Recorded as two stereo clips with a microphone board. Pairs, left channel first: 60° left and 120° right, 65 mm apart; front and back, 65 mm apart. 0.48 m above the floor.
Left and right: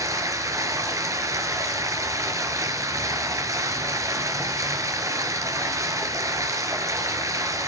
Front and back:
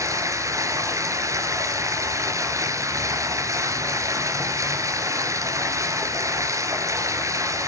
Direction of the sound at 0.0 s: 150° right.